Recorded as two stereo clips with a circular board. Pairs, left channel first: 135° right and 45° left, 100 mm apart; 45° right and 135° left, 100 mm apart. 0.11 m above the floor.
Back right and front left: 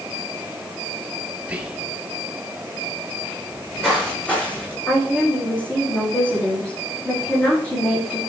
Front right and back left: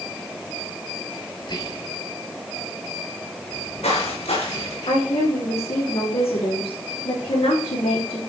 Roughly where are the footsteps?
Ahead right.